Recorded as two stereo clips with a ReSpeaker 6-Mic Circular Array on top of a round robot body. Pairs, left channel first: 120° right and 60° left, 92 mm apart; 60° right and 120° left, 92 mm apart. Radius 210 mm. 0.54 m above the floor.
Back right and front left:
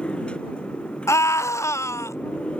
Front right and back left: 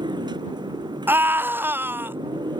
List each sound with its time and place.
0.0 s a motorcycle: 160° left
1.1 s a scream: 175° right